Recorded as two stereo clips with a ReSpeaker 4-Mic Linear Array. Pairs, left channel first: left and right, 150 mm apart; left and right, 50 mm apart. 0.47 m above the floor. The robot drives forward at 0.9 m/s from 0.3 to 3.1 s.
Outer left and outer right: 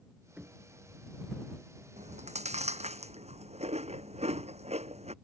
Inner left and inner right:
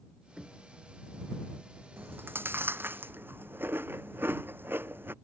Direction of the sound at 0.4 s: 10° right (ahead or behind).